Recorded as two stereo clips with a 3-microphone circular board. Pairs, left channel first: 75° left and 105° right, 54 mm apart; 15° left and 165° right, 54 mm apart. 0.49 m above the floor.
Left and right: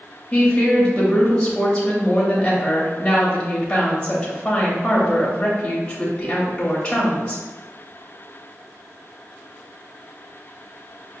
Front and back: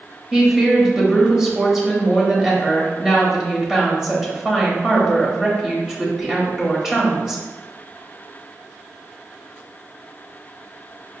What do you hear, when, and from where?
0.3 s a woman speaking: 125° left, 0.8 m